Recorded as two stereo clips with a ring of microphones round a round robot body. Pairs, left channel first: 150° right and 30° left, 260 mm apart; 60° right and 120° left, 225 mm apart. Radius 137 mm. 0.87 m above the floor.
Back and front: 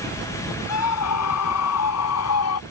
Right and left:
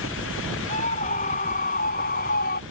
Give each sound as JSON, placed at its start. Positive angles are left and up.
{"t": 0.7, "sound": "a scream", "azimuth_deg": -125}